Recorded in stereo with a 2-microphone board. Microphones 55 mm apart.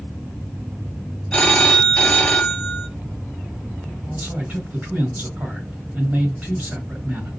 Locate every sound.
1.3 s a phone ringing: 20° left (ahead or behind), 0.8 m
4.1 s a man speaking: 35° right (ahead or behind), 3 m